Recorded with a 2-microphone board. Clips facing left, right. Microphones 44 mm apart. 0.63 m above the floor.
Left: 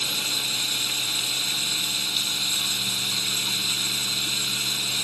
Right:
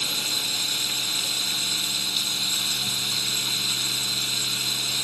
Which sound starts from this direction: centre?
Running water, at 0.0 s.